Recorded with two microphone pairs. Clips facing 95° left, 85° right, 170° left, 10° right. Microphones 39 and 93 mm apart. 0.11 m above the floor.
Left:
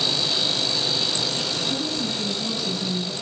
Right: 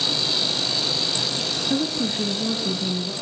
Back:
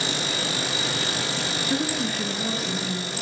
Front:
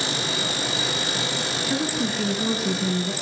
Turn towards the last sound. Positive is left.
turn(degrees=-15)